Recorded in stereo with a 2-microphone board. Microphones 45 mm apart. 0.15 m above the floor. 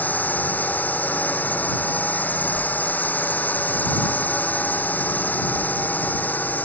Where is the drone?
40° left (ahead or behind).